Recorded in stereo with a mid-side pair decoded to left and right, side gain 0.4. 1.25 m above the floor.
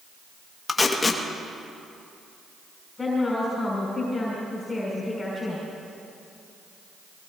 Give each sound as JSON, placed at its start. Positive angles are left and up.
{"t": 0.7, "sound": "tape being pulled", "azimuth_deg": 30, "distance_m": 1.8}
{"t": 3.0, "sound": "a woman speaking", "azimuth_deg": 30, "distance_m": 6.0}